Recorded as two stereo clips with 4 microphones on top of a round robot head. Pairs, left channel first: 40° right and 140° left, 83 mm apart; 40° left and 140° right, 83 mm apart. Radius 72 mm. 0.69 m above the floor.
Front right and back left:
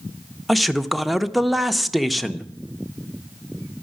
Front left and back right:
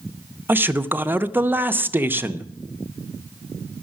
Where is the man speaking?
130° right, 0.7 m.